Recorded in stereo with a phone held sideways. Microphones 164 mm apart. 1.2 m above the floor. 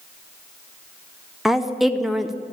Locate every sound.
1.4 s a woman speaking: centre (ahead or behind), 0.6 m